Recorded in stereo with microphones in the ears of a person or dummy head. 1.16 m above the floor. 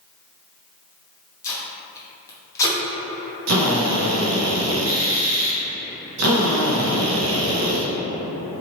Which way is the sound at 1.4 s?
15° left (ahead or behind).